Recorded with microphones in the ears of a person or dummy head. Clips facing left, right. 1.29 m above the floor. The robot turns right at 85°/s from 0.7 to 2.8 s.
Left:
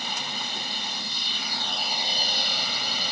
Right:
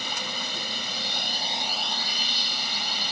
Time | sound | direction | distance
0.0 | a drone | 95° right | ?